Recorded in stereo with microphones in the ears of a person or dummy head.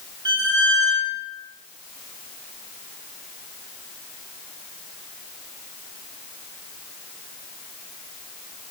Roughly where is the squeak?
Right.